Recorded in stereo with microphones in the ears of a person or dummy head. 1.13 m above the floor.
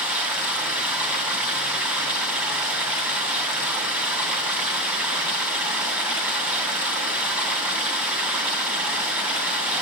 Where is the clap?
I don't hear a clap.